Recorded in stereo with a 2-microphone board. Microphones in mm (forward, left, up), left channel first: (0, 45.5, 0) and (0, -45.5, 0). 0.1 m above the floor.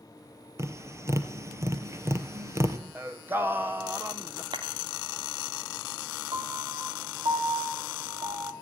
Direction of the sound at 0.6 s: 35° right (ahead or behind).